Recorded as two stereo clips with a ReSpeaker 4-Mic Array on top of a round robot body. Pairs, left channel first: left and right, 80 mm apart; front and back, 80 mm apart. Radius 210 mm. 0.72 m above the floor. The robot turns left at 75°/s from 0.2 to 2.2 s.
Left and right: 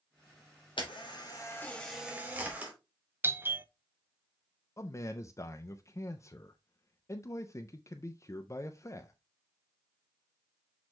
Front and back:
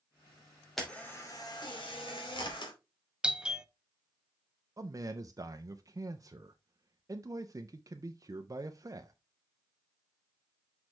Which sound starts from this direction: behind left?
A man speaking, at 4.8 s.